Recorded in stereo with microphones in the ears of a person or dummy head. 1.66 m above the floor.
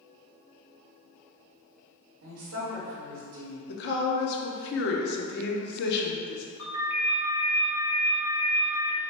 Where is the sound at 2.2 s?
60° right (ahead or behind), 0.9 m.